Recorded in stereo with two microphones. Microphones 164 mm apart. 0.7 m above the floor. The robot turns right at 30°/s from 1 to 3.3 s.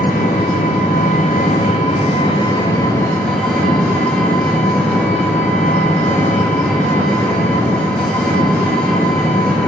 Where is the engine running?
105° left, 4.5 m; by 9.7 s 175° left, 4.5 m.